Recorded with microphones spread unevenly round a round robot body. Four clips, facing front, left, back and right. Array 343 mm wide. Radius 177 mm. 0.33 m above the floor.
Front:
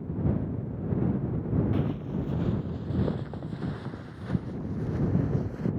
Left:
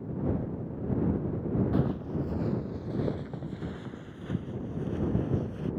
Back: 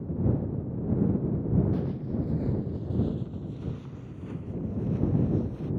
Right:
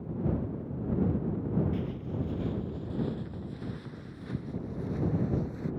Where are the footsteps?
55° left; by 5.7 s 15° left.